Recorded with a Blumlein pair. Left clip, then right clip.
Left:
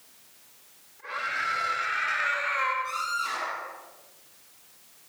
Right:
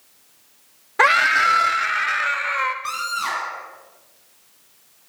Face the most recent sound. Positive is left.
turn(degrees=-35)